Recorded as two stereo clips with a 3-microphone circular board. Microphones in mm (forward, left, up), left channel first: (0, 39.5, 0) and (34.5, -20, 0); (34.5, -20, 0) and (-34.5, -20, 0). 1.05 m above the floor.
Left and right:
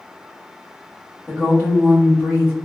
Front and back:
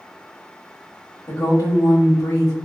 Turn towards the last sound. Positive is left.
turn(degrees=5)